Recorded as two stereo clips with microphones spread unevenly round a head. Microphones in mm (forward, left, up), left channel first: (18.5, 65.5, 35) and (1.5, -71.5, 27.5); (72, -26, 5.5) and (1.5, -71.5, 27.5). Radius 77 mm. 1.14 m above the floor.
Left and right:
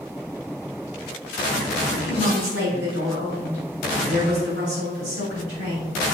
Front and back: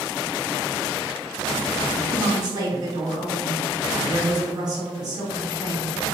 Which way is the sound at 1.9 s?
105° right.